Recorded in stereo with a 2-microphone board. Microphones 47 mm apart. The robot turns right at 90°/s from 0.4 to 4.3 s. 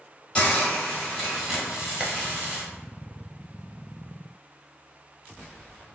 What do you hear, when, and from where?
0.3 s a hiss: 25° left (ahead or behind), 1.5 m; by 2.6 s 20° right (ahead or behind), 1.5 m
2.0 s a clap: 10° right (ahead or behind), 1.0 m; by 2.1 s centre (ahead or behind), 1.0 m